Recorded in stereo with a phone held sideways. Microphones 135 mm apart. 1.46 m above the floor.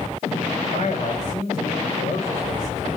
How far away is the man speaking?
About 6 m.